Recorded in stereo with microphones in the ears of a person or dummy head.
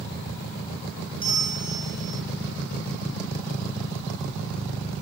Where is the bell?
5° right (ahead or behind), 2 m.